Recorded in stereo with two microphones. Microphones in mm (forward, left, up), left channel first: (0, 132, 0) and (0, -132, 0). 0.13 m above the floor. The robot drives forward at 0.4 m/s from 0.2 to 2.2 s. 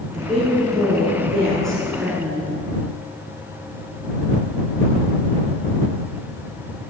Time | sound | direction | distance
0.1 | a woman speaking | centre (ahead or behind) | 1.5 m